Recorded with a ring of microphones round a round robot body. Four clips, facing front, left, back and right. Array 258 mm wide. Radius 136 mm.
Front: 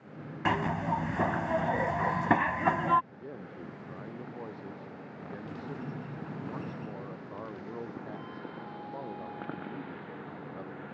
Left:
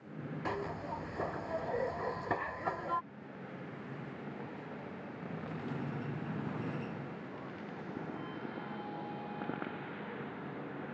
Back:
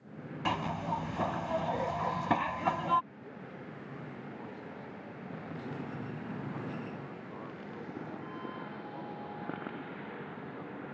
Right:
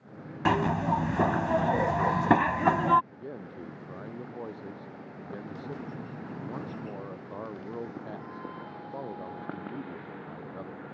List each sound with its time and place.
0.5 s a zipper: 75° right
3.1 s a man speaking: 65° right